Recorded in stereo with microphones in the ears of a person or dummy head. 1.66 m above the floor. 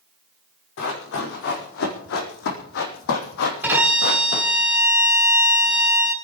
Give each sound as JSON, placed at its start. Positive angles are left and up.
{"t": 0.8, "sound": "running footsteps", "side_deg": 70, "distance_m": 5.0}
{"t": 3.6, "sound": "a violin", "side_deg": -10, "distance_m": 3.0}